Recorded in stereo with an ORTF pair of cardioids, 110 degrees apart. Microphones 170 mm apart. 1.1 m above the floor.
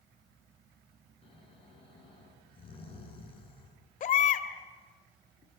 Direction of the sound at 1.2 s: 30° left.